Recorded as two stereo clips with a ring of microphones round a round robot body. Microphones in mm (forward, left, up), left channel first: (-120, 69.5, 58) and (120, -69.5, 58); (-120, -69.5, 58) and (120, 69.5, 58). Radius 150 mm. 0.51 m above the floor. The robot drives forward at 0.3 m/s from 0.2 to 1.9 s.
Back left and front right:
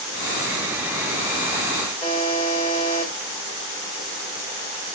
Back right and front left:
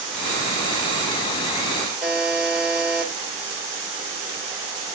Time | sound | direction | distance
2.0 | a buzzer | 115° left | 1.4 m